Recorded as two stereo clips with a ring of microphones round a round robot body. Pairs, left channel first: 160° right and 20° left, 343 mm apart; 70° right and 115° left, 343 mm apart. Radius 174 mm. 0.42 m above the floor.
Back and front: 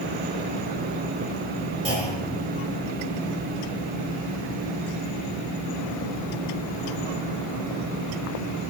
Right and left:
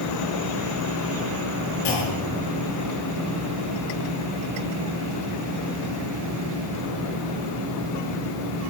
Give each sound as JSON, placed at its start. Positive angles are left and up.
{"t": 1.9, "sound": "a clunk", "azimuth_deg": -50, "distance_m": 7.0}